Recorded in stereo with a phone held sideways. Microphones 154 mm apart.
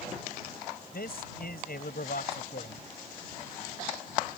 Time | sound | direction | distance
0.9 | a man speaking | 80° left | ?